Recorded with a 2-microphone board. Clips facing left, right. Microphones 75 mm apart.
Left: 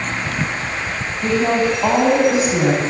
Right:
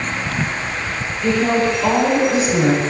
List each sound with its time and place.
1.2 s a woman speaking: 25° left (ahead or behind), 9 m